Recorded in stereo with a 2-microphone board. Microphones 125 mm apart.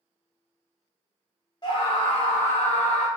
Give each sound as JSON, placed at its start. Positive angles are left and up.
{"t": 1.6, "sound": "a scream", "side_deg": 35, "distance_m": 0.6}